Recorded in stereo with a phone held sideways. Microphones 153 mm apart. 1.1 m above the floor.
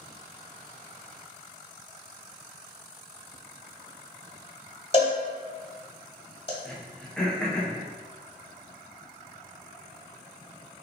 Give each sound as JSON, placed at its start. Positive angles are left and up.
{"t": 4.9, "sound": "a cowbell", "side_deg": 35, "distance_m": 1.3}
{"t": 6.7, "sound": "throat clearing", "side_deg": 5, "distance_m": 0.7}